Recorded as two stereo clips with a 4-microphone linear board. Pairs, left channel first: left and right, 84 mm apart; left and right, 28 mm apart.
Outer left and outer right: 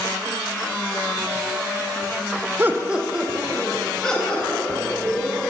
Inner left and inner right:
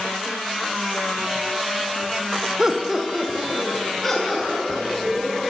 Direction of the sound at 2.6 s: 25° right (ahead or behind).